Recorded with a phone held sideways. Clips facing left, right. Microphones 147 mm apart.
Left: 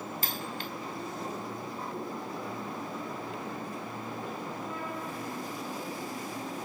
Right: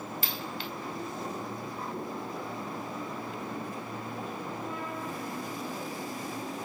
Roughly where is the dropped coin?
Left.